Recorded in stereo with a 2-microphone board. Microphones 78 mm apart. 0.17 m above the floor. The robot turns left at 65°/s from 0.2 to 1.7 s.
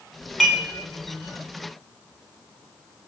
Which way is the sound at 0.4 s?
5° left (ahead or behind).